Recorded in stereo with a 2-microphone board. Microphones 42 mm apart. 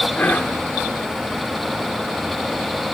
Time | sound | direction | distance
0.1 | whispering | 45° left (ahead or behind) | 1.1 m